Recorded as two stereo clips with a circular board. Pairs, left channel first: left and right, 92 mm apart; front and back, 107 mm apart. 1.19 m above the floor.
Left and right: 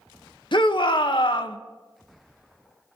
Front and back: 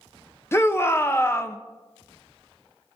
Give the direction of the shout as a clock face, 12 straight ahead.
10 o'clock.